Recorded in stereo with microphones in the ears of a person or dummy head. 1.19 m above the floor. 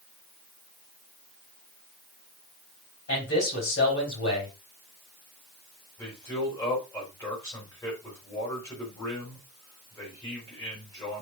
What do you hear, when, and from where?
3.1 s a man speaking: 70° left (ahead or behind), 5.5 m
6.0 s a man speaking: 20° left (ahead or behind), 4.5 m